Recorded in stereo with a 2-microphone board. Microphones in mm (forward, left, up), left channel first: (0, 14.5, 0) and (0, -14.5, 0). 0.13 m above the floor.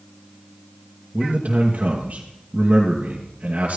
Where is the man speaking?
55° right (ahead or behind), 2.5 m.